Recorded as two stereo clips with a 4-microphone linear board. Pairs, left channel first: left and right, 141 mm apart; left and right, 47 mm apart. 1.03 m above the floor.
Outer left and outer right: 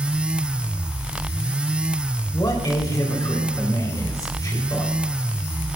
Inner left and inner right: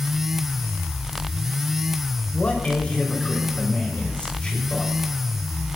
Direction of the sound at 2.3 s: 25° left (ahead or behind).